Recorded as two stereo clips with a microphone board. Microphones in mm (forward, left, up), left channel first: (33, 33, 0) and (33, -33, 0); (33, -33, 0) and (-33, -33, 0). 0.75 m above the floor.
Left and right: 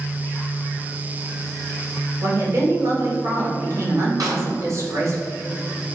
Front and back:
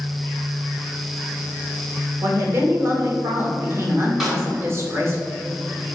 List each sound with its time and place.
2.2 s a woman speaking: 130° right, 1.8 m
4.2 s a snare drum: 90° right, 2 m